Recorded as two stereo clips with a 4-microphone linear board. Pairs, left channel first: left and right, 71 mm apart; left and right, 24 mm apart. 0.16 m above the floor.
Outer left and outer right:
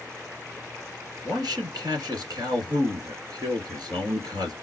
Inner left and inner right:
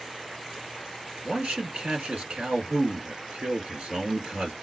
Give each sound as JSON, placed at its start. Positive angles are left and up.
{"t": 1.2, "sound": "a man speaking", "side_deg": -60, "distance_m": 2.5}